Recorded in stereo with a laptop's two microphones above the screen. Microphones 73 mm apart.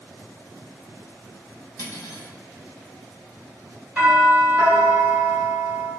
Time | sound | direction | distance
1.8 | cutlery clinking | 60° left (ahead or behind) | 0.6 m
4.0 | a doorbell | 20° right (ahead or behind) | 1.8 m